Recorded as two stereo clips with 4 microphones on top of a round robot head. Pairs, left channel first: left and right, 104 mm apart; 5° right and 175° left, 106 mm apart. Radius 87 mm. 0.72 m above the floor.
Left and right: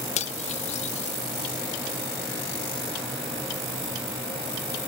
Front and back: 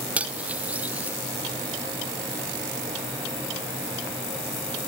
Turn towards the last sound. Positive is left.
turn(degrees=95)